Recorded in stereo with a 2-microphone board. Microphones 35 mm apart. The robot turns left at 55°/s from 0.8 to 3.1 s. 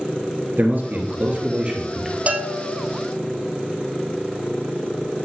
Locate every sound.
0.6 s a man speaking: 95° right, 1.9 m; by 2.2 s 170° right, 1.9 m
2.3 s a bell: 85° right, 0.8 m; by 2.8 s 115° right, 0.8 m